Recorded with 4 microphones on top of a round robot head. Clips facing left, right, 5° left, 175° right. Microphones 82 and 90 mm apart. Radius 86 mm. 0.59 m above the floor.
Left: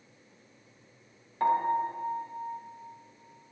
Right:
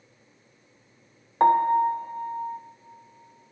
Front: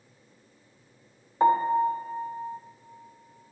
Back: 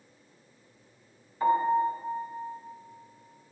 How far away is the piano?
About 0.8 m.